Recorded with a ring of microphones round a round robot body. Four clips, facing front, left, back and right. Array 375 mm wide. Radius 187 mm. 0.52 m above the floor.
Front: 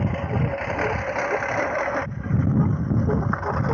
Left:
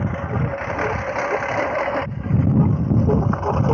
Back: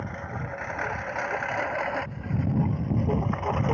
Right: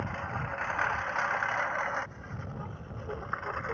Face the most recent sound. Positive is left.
turn(degrees=85)